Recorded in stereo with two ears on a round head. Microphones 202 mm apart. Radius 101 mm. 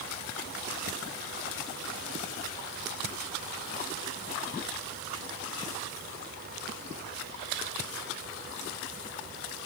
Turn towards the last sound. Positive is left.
No sound to turn to.